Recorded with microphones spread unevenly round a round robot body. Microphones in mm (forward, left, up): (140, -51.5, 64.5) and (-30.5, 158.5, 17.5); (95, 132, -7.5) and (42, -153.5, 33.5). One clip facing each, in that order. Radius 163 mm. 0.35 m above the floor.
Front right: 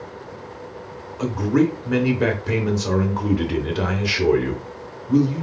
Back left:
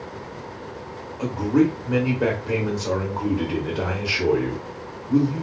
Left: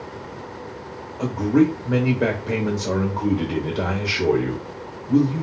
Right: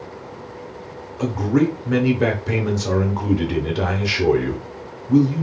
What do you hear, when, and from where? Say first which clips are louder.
1.2 s a man speaking: even, left 1 dB; 45° right, 0.8 m